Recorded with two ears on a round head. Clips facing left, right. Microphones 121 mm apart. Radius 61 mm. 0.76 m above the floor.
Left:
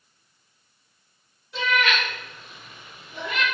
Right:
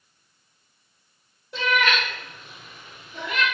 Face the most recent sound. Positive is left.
turn(degrees=35)  # may be behind; listen again after turning